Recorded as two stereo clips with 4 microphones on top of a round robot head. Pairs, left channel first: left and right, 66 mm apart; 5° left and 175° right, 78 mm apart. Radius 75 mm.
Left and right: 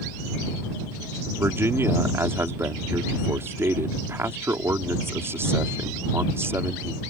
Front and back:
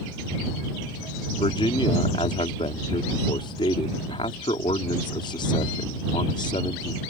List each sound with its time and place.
1.4 s a man speaking: 35° right